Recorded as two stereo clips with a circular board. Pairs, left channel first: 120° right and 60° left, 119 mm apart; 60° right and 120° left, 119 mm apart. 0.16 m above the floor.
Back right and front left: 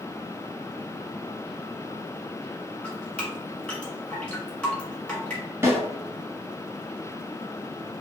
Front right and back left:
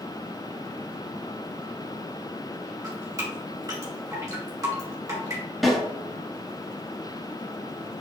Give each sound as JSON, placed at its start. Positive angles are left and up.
{"t": 2.8, "sound": "dripping", "azimuth_deg": 165, "distance_m": 1.6}
{"t": 5.6, "sound": "a snare drum", "azimuth_deg": 30, "distance_m": 1.7}